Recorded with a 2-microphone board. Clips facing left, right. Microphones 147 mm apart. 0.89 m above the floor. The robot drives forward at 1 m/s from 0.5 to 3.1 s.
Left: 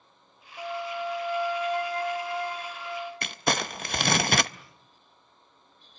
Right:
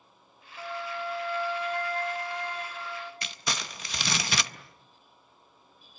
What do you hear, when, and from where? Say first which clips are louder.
0.6 s a flute: left 3 dB; 20° left (ahead or behind), 1.5 m; by 3.1 s 10° left (ahead or behind), 4 m
3.2 s crumpling: left 12 dB; 55° left (ahead or behind), 0.5 m